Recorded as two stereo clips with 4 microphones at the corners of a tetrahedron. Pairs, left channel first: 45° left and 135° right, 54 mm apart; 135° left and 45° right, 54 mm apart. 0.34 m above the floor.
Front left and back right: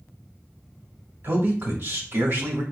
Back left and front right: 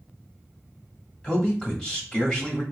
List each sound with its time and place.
1.2 s a man speaking: 155° right, 1.5 m